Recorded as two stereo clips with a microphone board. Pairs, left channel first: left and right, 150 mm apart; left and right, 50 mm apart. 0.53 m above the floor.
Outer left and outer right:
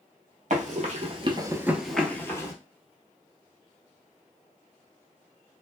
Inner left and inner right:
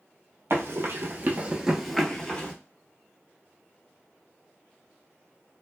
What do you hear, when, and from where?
0.5 s running footsteps: 60° right (ahead or behind), 0.9 m; by 2.5 s 25° left (ahead or behind), 0.9 m